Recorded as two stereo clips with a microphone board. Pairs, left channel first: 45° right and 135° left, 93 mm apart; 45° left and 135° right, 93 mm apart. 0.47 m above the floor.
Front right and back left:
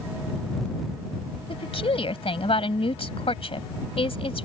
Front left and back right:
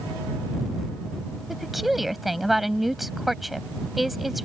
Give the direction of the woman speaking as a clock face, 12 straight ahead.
2 o'clock.